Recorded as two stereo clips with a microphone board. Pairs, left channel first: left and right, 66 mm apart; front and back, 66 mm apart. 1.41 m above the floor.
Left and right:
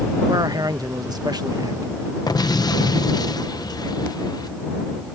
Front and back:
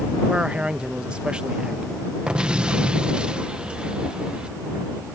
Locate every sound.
0.3 s a man speaking: 105° right
2.3 s an explosion: 105° left